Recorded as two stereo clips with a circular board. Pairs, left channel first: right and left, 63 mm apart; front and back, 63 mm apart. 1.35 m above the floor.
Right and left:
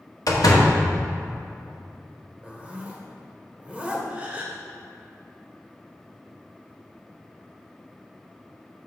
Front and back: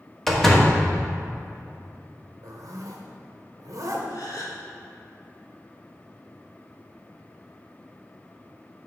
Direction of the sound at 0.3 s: 85° right.